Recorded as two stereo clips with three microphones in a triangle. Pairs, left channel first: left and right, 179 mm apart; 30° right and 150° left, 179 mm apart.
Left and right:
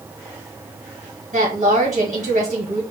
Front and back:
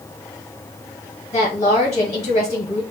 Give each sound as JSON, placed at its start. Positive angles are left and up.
{"t": 1.3, "sound": "a woman speaking", "azimuth_deg": -70, "distance_m": 1.4}